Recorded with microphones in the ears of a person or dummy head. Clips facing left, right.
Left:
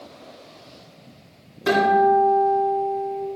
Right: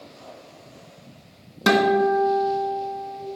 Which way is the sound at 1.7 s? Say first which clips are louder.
Left 1 dB; 70° right (ahead or behind).